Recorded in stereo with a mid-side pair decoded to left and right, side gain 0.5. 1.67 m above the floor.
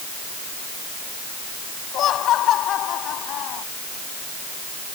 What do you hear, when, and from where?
1.9 s laughter: 65° left